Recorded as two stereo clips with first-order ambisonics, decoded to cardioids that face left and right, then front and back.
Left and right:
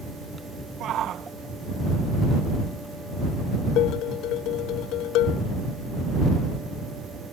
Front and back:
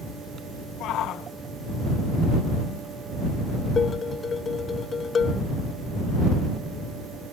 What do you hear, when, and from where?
0.8 s a shout: 40° right
3.8 s dishes clattering: 65° left